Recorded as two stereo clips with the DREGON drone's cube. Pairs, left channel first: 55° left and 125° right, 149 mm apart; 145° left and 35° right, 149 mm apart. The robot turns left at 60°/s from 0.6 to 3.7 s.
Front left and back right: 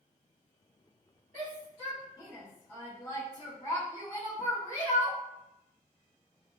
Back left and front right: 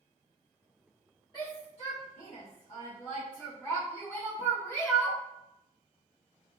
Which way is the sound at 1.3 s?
155° right.